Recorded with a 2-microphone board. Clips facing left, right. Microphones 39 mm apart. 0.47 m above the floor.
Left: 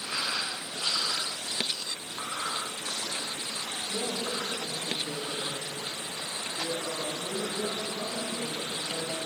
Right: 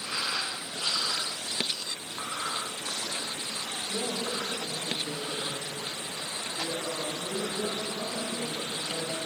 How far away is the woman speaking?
About 3 m.